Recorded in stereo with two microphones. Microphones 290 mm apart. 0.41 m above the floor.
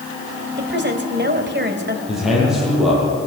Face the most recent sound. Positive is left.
turn(degrees=0)  # may be behind; listen again after turning